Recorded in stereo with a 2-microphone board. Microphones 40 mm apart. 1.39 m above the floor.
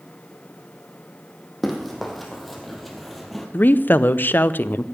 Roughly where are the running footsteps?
Centre.